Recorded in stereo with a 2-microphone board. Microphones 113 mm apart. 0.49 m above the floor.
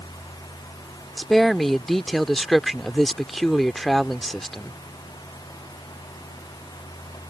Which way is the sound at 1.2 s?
Centre (ahead or behind).